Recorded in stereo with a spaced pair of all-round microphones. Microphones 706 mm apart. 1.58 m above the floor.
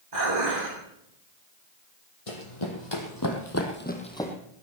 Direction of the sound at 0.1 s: 85° right.